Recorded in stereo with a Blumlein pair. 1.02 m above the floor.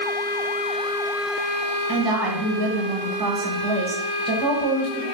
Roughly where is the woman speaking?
Ahead right.